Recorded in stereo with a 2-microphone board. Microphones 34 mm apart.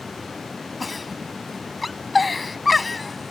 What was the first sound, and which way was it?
A giggle, centre (ahead or behind).